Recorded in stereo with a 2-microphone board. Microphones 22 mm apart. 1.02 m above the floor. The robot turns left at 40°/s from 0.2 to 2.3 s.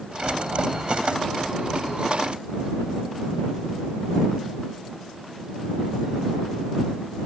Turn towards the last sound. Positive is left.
No sound to turn to.